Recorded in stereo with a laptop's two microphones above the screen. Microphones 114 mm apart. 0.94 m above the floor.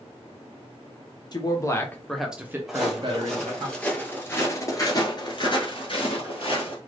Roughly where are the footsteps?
Centre.